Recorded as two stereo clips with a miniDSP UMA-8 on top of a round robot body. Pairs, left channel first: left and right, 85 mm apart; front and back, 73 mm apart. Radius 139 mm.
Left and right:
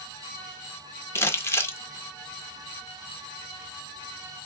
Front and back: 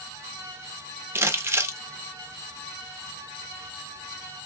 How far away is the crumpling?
About 0.9 m.